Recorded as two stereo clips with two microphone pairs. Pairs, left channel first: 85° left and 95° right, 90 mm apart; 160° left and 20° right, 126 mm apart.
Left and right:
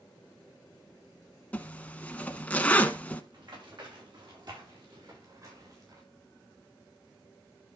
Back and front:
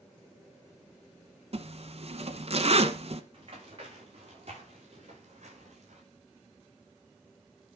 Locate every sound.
1.5 s a zipper: 10° left, 1.0 m
3.3 s running footsteps: 65° right, 7.5 m; by 6.0 s 50° right, 7.5 m